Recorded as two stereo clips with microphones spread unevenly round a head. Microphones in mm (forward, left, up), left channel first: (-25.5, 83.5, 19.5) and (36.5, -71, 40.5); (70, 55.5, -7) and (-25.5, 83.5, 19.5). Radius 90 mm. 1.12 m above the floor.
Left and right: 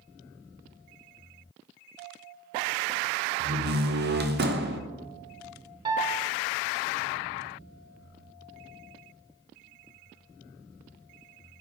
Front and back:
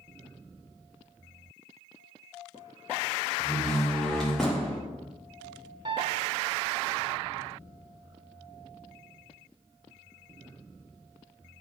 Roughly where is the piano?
Behind right.